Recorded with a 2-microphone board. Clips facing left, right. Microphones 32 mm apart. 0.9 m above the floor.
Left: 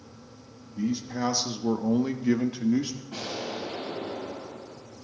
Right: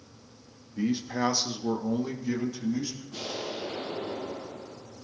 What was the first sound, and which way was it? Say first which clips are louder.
A man speaking: right 1 dB; 40° right (ahead or behind).